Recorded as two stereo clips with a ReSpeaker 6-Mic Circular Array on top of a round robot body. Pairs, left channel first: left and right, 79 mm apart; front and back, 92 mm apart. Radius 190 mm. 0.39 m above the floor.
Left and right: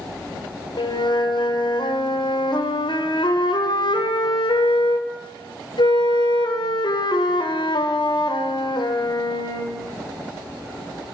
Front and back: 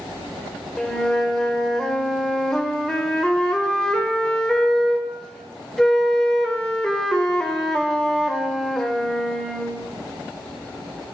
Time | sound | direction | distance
0.8 | a flute | 80° left | 2 m